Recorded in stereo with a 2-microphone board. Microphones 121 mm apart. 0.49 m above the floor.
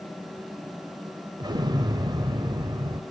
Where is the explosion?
35° right (ahead or behind), 1.0 m.